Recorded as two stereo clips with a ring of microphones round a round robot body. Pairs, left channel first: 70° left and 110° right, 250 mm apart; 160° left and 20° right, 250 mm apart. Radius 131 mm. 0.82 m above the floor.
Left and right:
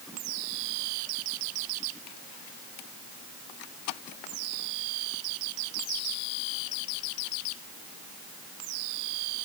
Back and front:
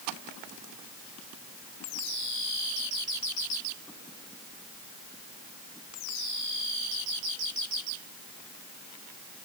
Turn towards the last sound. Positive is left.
No sound to turn to.